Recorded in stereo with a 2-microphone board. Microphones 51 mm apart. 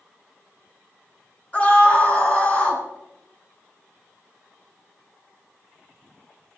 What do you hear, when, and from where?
1.5 s a scream: 25° left (ahead or behind), 4.5 m